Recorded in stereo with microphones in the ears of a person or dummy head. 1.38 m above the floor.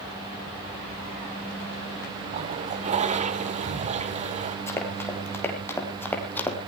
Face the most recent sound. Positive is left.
turn(degrees=10)  # may be behind; listen again after turning